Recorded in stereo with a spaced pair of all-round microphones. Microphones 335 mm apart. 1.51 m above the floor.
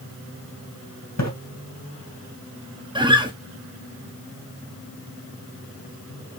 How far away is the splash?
About 2.5 m.